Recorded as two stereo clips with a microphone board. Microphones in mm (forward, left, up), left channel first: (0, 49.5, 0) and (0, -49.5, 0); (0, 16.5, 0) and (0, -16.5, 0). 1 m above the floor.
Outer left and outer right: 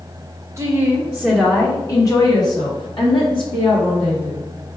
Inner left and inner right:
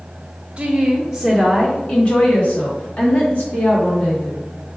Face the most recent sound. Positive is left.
turn(degrees=65)  # may be behind; listen again after turning